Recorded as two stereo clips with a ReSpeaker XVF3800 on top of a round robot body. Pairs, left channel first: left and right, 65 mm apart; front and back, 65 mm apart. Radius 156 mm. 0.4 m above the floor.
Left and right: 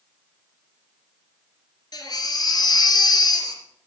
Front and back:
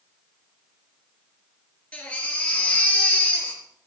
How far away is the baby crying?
About 3 m.